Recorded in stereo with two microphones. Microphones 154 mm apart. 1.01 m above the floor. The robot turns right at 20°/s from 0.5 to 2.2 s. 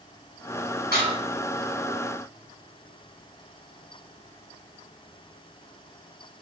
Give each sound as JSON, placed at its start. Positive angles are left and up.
{"t": 0.9, "sound": "dishes clattering", "side_deg": -80, "distance_m": 1.1}